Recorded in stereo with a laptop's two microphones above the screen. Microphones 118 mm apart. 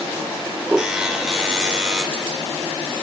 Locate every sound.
0.8 s a buzzer: 5° right (ahead or behind), 2 m